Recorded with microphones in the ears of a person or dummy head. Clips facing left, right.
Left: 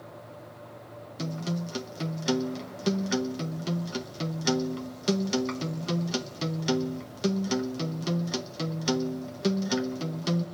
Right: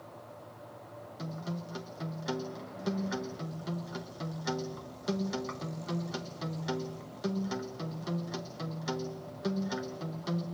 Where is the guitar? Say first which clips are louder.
Left 7 dB; 35° left (ahead or behind), 1.1 m.